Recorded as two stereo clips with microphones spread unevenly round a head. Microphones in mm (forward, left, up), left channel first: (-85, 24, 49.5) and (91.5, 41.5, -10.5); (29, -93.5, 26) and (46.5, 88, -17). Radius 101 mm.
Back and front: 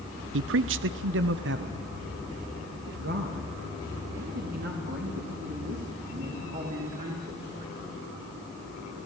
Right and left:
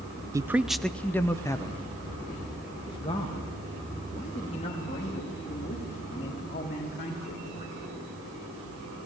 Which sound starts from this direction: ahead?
A man speaking, at 0.3 s.